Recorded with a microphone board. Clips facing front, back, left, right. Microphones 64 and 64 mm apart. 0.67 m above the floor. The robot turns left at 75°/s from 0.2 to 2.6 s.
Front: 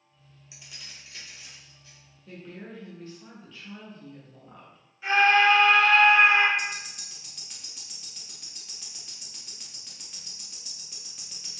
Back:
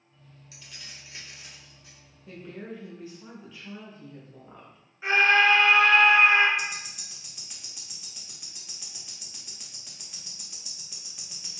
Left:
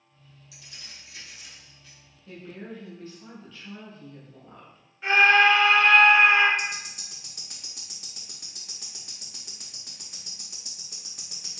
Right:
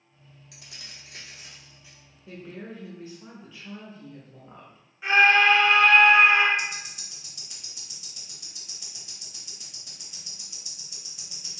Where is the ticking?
95° left, 0.7 m.